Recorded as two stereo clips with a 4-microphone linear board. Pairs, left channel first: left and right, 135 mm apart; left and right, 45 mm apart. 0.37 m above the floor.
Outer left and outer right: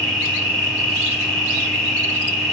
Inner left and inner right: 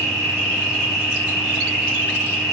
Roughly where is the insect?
Right.